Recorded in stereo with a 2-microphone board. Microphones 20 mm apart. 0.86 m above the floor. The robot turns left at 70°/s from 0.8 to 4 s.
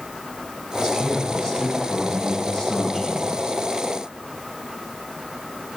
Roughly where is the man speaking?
Behind right.